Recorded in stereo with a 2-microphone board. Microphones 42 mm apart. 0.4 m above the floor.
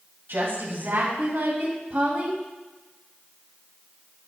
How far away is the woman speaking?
About 2.5 m.